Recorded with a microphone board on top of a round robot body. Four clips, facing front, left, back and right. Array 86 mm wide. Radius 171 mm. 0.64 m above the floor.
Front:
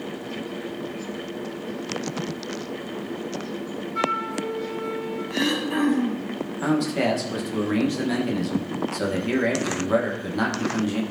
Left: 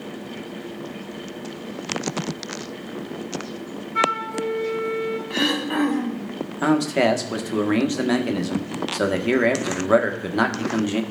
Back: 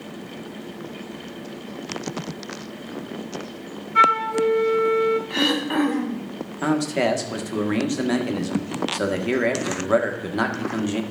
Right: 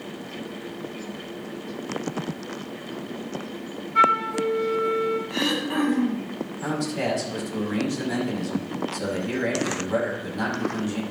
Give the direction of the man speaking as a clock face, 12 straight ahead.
8 o'clock.